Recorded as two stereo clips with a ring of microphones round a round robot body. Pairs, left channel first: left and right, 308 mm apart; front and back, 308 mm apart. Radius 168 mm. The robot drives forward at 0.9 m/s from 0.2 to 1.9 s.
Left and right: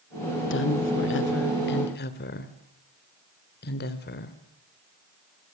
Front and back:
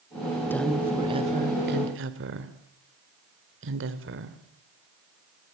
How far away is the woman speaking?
About 1.5 m.